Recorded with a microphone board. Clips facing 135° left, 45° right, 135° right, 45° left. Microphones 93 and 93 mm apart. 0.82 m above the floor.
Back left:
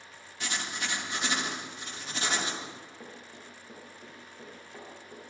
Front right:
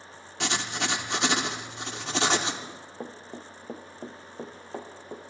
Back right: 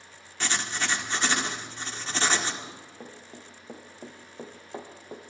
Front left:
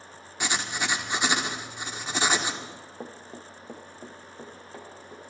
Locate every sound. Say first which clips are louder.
0.4 s writing: front right 6 dB, front left 1 dB; 35° right, 1.1 m
2.6 s running footsteps: front right 5 dB, front left 3 dB; straight ahead, 1.6 m; by 5.2 s 85° right, 2 m